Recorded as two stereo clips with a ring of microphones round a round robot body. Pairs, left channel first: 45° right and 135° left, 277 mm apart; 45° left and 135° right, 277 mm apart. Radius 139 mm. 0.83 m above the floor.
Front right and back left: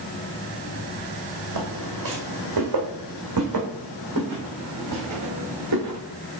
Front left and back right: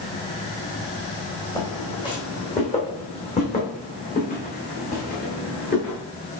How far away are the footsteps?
About 3 m.